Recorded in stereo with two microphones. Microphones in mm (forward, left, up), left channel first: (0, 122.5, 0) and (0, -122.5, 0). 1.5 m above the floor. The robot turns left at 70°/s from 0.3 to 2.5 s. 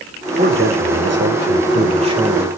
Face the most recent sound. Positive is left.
turn(degrees=175)